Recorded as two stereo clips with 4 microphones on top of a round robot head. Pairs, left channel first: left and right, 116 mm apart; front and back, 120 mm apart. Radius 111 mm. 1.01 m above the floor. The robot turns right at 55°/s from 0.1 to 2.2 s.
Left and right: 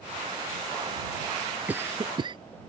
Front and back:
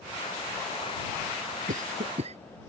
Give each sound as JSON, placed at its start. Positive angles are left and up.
{"t": 1.7, "sound": "a cough", "azimuth_deg": -170}